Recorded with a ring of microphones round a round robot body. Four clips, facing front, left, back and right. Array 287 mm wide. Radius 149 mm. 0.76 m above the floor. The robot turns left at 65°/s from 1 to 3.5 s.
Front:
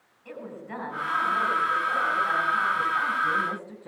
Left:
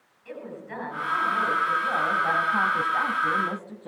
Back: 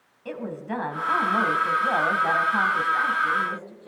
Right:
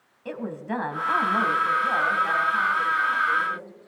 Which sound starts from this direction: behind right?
A woman speaking, at 0.2 s.